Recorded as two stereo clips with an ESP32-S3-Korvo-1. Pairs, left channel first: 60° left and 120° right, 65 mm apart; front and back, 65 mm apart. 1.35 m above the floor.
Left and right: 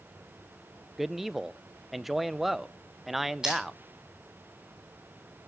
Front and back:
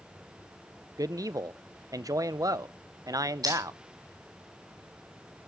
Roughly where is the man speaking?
Behind left.